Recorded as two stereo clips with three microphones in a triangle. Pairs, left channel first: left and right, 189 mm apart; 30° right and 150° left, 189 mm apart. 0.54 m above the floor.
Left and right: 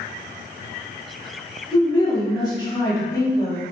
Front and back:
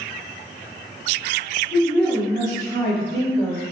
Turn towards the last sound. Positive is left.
turn(degrees=20)